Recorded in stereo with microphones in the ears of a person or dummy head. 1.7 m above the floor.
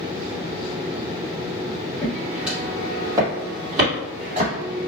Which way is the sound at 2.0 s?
5° left (ahead or behind).